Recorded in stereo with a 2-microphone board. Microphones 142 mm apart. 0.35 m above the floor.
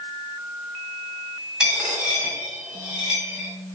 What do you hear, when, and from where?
1.6 s a dropped coin: 5° right (ahead or behind), 1.5 m